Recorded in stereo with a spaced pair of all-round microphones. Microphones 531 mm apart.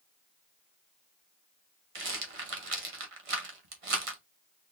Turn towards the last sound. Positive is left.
turn(degrees=-85)